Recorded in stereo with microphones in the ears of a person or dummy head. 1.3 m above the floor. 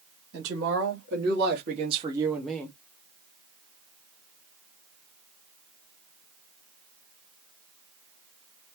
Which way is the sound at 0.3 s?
70° right (ahead or behind).